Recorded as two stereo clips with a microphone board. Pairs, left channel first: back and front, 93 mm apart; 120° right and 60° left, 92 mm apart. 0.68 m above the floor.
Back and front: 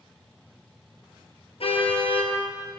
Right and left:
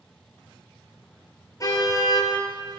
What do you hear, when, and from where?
1.6 s a car horn: 170° right, 6 m